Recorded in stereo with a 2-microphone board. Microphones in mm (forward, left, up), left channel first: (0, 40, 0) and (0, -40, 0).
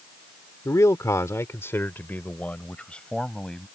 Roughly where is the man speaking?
Left.